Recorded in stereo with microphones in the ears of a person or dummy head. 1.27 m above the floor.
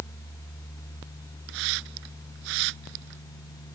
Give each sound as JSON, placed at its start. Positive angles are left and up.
{"t": 1.5, "sound": "a hiss", "side_deg": -70}